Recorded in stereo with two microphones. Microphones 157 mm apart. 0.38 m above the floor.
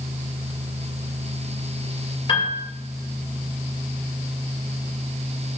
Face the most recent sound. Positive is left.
turn(degrees=35)  # may be behind; listen again after turning